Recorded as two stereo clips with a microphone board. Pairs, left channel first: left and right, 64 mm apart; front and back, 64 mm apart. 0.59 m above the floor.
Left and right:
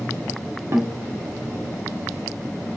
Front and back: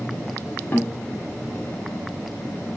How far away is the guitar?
About 0.8 m.